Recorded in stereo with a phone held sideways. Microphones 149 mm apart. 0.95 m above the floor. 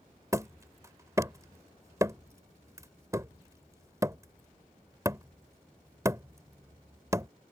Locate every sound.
0.3 s hammering: 20° right (ahead or behind)